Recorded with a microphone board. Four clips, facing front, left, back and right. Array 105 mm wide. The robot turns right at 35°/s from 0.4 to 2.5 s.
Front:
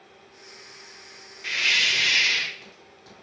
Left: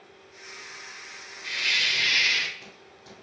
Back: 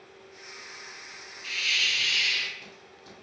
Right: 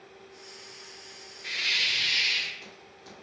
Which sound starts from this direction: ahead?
A hiss, at 1.4 s.